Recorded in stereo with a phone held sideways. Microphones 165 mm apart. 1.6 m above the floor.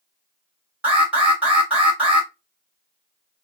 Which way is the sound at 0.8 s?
10° right (ahead or behind).